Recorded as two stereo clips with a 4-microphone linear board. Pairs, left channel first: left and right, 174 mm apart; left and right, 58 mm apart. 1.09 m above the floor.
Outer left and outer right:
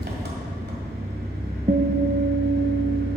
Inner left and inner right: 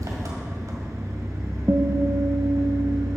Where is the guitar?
50° right (ahead or behind), 0.8 m.